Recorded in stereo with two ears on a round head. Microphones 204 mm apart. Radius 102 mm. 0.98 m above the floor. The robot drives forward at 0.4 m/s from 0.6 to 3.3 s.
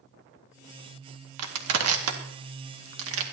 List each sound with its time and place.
1.4 s crushing: 75° right (ahead or behind), 1.8 m; by 3.2 s 65° right (ahead or behind), 1.9 m